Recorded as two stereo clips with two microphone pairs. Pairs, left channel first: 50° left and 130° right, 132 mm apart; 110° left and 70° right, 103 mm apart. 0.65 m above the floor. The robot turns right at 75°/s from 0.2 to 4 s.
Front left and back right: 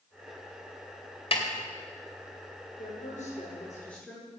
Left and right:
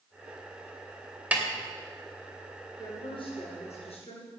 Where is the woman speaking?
45° left, 9.5 m; by 4.3 s 135° left, 9.5 m.